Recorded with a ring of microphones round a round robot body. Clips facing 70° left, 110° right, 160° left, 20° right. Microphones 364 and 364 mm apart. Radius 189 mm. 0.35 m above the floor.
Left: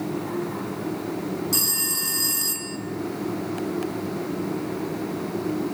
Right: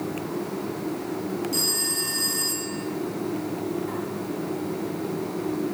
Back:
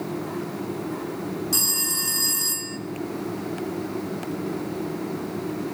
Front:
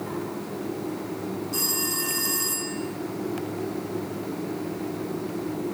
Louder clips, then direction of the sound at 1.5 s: Right 1 dB, front 2 dB; 130° left.